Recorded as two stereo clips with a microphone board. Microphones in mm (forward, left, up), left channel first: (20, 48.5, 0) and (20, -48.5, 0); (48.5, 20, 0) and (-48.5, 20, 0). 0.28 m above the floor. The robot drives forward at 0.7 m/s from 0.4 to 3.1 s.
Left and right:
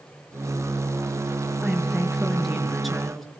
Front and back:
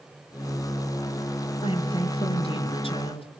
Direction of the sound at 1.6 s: Straight ahead.